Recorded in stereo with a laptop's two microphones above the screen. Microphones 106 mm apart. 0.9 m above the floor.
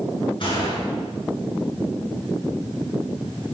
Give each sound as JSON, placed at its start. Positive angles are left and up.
{"t": 0.4, "sound": "a gunshot", "side_deg": 50, "distance_m": 9.0}